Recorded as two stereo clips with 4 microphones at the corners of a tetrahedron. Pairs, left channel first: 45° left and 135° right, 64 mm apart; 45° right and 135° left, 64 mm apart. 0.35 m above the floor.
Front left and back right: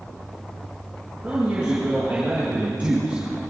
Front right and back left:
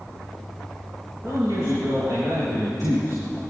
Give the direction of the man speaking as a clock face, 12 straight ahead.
7 o'clock.